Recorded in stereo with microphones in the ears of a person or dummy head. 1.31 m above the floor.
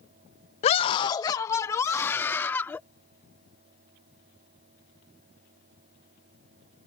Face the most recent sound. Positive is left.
turn(degrees=10)  # may be behind; listen again after turning